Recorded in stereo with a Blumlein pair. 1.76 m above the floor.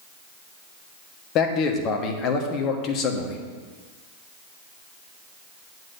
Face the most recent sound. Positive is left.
turn(degrees=35)